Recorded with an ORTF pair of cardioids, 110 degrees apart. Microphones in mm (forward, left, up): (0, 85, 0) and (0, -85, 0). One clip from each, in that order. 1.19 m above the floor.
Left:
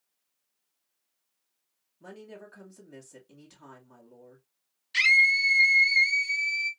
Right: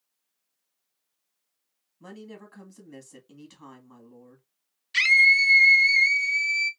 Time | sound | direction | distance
2.0 | a woman speaking | 25° right | 2 m
4.9 | a scream | 10° right | 0.9 m